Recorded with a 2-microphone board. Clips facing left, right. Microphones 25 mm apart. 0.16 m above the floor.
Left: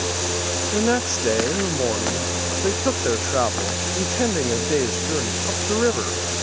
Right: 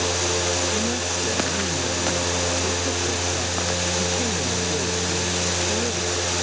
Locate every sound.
0.7 s a man speaking: 55° left (ahead or behind)